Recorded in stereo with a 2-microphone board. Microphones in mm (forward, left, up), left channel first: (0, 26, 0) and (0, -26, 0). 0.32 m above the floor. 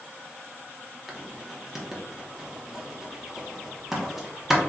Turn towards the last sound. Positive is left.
turn(degrees=-5)  # may be behind; listen again after turning